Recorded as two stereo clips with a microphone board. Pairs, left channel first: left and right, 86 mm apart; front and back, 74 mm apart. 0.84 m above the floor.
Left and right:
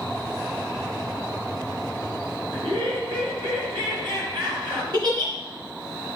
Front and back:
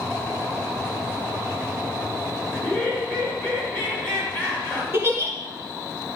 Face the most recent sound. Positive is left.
turn(degrees=-125)